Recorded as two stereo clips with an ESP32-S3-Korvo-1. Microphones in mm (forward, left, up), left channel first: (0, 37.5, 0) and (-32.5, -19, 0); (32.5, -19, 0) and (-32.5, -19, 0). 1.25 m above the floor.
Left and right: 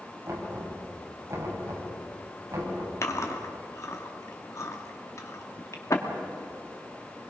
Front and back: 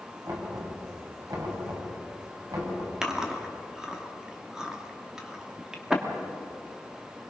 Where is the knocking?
165° right, 6 m.